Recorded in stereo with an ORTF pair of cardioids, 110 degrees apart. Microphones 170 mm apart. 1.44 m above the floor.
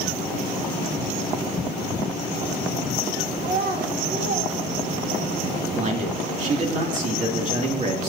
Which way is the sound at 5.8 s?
45° right.